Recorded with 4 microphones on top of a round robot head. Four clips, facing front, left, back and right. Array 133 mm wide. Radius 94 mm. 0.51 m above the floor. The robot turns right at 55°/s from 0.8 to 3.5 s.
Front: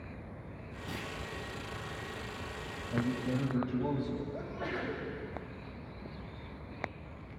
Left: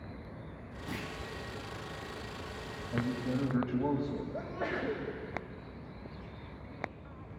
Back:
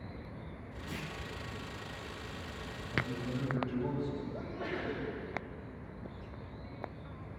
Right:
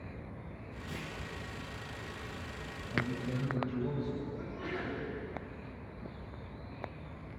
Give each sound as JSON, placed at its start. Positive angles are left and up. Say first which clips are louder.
{"t": 0.9, "sound": "a clunk", "louder": "left 4 dB, front 2 dB", "azimuth_deg": 75, "distance_m": 5.0}
{"t": 2.9, "sound": "a man speaking", "louder": "left 3 dB, front 4 dB", "azimuth_deg": 45, "distance_m": 3.0}
{"t": 4.3, "sound": "a sneeze", "louder": "left 4 dB, front 1 dB", "azimuth_deg": 85, "distance_m": 3.5}